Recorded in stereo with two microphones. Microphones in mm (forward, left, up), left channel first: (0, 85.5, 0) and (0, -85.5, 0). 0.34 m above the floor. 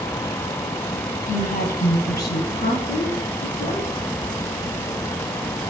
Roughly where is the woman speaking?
Left.